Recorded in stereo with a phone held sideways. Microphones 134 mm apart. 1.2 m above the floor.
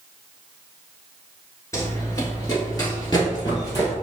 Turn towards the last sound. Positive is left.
turn(degrees=25)  # may be behind; listen again after turning